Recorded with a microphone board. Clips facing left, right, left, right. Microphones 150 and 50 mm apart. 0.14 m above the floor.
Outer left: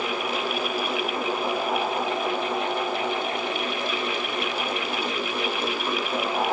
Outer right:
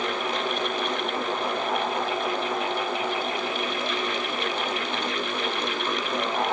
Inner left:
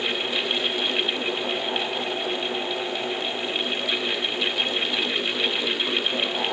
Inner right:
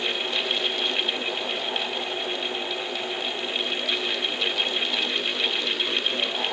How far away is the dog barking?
No dog barking in this recording.